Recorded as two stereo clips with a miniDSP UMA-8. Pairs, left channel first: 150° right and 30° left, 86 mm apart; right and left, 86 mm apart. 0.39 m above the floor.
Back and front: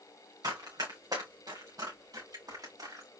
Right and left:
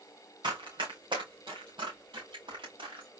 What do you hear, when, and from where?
0.4 s running footsteps: 70° left, 2.5 m; by 3.1 s 75° left, 3.5 m